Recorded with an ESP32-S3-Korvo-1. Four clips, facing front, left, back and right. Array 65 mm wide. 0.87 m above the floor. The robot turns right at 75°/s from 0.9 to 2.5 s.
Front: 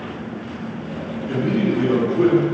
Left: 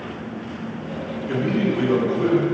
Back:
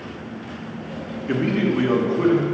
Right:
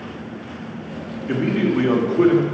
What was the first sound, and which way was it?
A man speaking, 150° right.